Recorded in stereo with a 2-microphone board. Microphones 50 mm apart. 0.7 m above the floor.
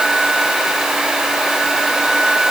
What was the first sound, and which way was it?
Only background noise.